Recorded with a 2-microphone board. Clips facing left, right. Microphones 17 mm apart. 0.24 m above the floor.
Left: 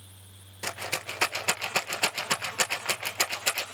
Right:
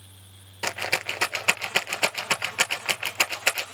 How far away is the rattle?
About 1.6 m.